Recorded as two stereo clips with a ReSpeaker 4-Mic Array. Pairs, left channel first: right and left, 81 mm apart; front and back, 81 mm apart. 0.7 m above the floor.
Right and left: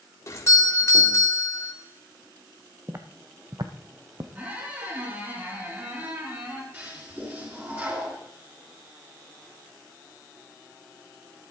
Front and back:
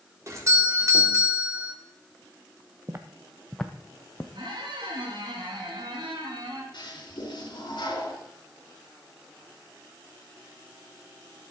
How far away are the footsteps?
About 1.1 m.